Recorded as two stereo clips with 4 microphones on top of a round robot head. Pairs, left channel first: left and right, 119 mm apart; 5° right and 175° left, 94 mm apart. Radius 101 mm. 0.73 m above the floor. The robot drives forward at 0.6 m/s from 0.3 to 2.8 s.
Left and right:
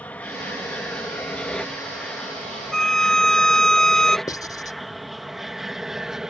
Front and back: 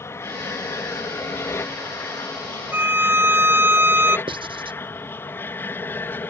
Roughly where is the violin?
Behind.